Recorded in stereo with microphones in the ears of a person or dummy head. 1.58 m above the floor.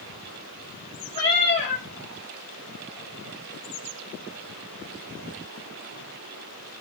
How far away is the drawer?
No drawer in this recording.